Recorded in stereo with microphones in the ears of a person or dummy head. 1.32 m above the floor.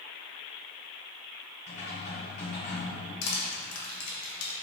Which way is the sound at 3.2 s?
80° left.